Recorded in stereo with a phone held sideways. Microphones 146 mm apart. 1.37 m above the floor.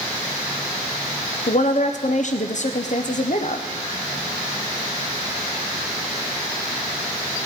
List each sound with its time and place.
1.5 s a woman speaking: 55° left (ahead or behind), 0.5 m